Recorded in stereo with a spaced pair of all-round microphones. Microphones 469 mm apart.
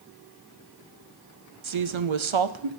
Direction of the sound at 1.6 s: 80° right.